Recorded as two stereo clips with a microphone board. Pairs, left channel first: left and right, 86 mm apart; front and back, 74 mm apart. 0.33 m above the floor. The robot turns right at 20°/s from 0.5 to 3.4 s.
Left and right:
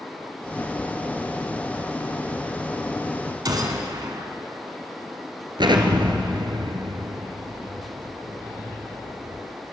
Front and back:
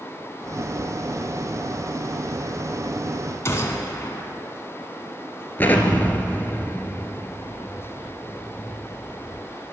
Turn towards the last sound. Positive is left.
turn(degrees=-65)